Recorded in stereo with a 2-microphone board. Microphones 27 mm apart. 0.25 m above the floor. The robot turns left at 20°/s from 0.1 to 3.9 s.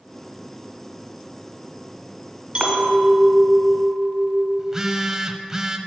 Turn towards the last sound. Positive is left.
turn(degrees=-15)  # may be behind; listen again after turning